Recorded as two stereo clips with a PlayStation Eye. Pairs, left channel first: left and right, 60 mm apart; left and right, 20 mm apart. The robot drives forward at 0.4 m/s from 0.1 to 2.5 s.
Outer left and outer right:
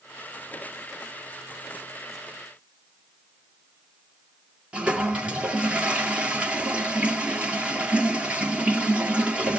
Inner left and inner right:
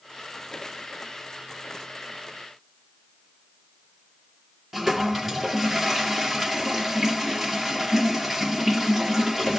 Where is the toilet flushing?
15° right (ahead or behind), 2 m.